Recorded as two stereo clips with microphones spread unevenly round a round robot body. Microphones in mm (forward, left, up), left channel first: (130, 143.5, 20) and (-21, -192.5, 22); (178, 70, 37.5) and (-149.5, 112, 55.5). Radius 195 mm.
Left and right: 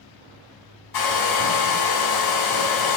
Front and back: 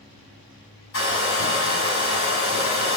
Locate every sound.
0.9 s a hair dryer: 40° left, 5.5 m